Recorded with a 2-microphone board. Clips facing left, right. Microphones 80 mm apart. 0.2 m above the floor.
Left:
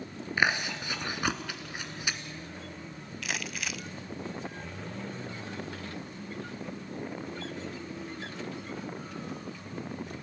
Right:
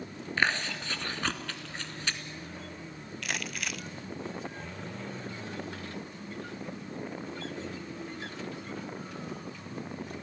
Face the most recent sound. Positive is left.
turn(degrees=0)  # may be behind; listen again after turning